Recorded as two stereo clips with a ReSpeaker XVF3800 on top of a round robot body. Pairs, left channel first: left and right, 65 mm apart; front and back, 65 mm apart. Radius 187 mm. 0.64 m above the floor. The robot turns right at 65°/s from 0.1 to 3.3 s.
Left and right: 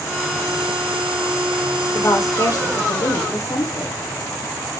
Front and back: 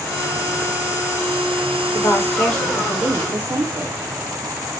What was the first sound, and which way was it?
A woman speaking, 35° left.